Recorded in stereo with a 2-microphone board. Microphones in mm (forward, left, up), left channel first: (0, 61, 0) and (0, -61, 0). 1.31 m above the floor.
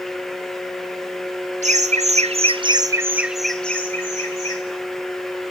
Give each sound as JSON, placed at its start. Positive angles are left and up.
{"t": 1.6, "sound": "laughter", "side_deg": -70, "distance_m": 0.9}